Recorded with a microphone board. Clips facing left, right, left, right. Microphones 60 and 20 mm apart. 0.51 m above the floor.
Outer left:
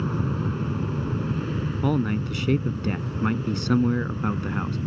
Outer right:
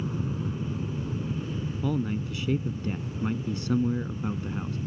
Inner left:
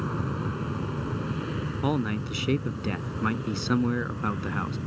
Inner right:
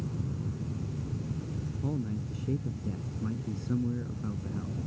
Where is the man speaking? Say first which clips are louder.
Outer left 5 dB, inner left 8 dB; 75° left (ahead or behind).